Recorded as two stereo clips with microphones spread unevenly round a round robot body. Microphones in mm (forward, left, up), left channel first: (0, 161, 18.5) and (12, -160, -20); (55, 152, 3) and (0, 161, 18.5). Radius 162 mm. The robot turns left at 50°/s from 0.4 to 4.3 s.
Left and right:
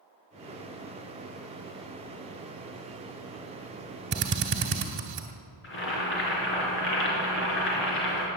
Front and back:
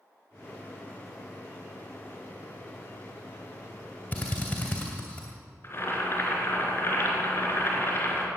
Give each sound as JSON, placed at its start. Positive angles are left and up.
{"t": 4.1, "sound": "a drill", "azimuth_deg": -50, "distance_m": 2.0}
{"t": 5.6, "sound": "boiling", "azimuth_deg": 35, "distance_m": 4.0}